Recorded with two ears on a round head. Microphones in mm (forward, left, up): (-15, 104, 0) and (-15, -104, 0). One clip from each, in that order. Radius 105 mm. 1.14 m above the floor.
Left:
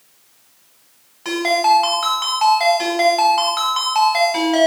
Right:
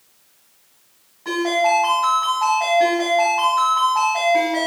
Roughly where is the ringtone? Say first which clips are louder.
Left 3 dB; left.